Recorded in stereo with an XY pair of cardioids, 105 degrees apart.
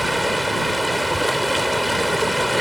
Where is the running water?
Straight ahead.